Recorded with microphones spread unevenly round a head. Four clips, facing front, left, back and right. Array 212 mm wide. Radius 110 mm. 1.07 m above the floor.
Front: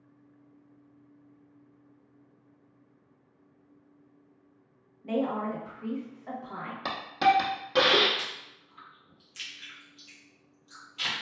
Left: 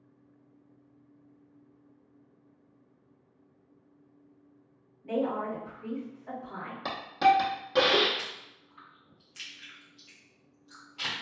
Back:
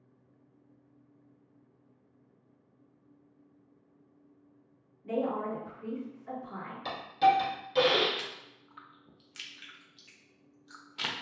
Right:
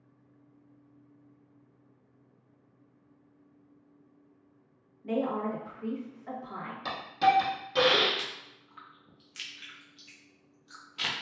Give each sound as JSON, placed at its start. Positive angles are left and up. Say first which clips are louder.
{"t": 5.0, "sound": "a woman speaking", "louder": "even, front 2 dB", "azimuth_deg": -40, "distance_m": 1.6}
{"t": 6.8, "sound": "a hiss", "louder": "left 2 dB, front 1 dB", "azimuth_deg": 20, "distance_m": 0.7}
{"t": 8.2, "sound": "chewing", "louder": "right 1 dB, front 2 dB", "azimuth_deg": -130, "distance_m": 0.7}